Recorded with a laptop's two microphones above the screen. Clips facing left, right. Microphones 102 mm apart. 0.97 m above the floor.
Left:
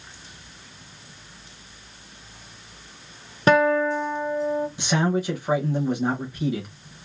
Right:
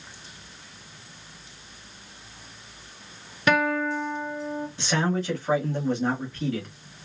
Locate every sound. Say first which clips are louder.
3.5 s a guitar: left 5 dB; 35° left (ahead or behind), 0.8 m
4.8 s a man speaking: right 1 dB; 15° left (ahead or behind), 1.0 m